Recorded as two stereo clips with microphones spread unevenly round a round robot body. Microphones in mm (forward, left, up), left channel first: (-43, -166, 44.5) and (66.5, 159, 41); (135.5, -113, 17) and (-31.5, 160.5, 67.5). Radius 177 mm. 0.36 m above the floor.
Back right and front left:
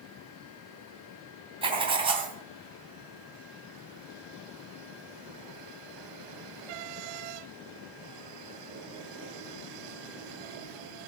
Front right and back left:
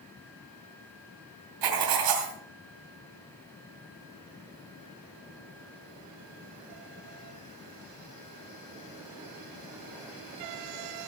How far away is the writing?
About 2.5 m.